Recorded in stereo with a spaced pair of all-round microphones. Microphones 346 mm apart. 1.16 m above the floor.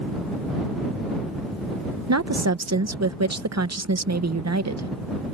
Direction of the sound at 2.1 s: 50° right (ahead or behind).